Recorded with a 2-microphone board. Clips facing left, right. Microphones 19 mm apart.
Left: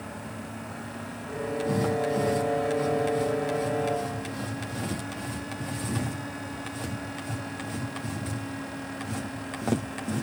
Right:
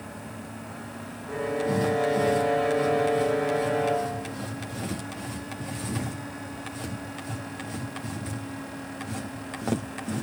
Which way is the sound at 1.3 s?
30° right (ahead or behind).